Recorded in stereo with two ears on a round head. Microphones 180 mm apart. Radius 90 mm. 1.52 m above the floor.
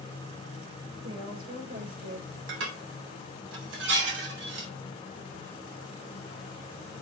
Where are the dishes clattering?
70° right (ahead or behind), 4 m.